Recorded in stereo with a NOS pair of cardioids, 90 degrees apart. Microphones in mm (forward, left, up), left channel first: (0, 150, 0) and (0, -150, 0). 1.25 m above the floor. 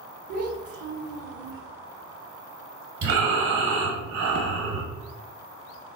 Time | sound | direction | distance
0.3 | a child speaking | 55° right | 0.7 m
3.0 | breathing | 65° right | 1.0 m